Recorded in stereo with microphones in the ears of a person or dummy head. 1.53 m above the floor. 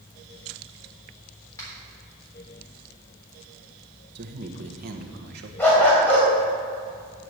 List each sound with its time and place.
1.6 s a finger snap: 15° left (ahead or behind), 4 m
4.2 s a man speaking: 60° right (ahead or behind), 1.4 m
5.6 s a dog barking: 10° left (ahead or behind), 3.5 m